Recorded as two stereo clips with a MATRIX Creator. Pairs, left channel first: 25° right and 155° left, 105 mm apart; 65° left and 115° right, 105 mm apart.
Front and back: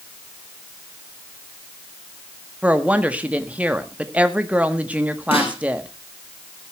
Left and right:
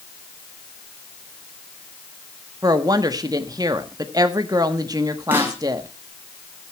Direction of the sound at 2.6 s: 135° right.